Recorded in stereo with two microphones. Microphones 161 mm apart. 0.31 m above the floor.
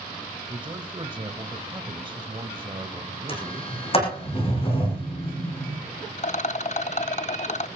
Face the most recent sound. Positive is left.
turn(degrees=50)  # may be behind; listen again after turning